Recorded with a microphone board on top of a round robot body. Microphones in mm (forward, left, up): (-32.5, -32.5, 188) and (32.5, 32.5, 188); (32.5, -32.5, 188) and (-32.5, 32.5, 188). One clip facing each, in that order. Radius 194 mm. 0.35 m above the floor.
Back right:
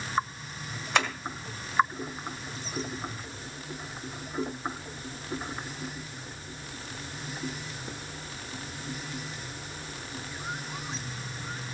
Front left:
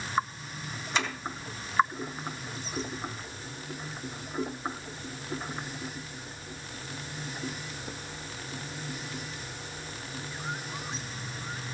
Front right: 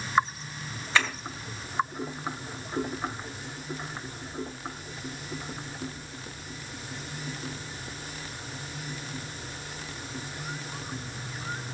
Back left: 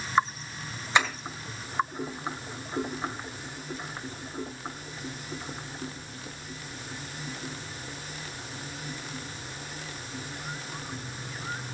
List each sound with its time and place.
0.9 s tapping: 155° right, 1.9 m